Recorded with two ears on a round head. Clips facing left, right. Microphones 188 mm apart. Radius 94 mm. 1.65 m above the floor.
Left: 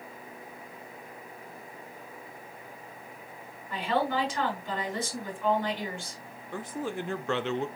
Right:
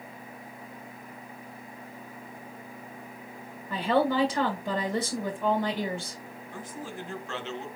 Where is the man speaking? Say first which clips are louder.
Left 6 dB; 55° left (ahead or behind), 0.5 m.